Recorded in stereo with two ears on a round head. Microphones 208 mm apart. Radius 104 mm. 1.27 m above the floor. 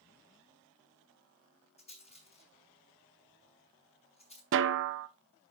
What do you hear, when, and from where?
1.8 s a rattle: 30° left (ahead or behind), 5.5 m
4.5 s a snare drum: 55° right (ahead or behind), 0.9 m